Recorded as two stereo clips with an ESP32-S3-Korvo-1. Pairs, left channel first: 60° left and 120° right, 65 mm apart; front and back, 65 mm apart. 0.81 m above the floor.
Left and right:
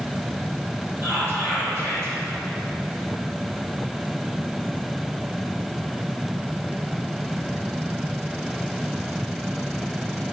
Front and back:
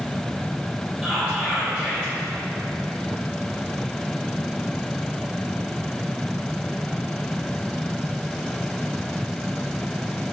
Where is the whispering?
130° right, 1.4 m.